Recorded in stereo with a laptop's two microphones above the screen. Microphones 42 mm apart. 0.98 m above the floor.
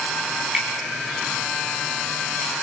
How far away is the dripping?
About 4 m.